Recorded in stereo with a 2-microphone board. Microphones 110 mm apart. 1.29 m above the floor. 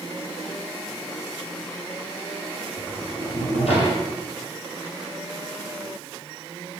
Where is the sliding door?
70° left (ahead or behind), 9 m.